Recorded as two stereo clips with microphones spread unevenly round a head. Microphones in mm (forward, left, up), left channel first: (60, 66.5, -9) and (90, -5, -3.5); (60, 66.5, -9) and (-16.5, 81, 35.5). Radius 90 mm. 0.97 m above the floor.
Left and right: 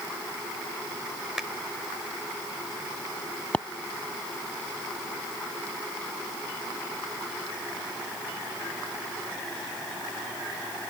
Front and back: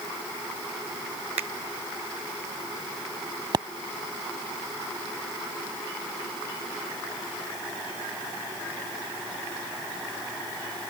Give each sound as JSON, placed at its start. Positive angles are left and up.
{"t": 1.4, "sound": "a finger snap", "azimuth_deg": -155}
{"t": 3.5, "sound": "a pop", "azimuth_deg": -165}